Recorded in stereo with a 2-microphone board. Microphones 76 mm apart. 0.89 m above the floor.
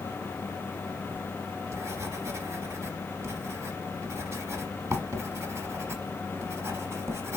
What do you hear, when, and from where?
1.1 s writing: 40° right (ahead or behind), 1.1 m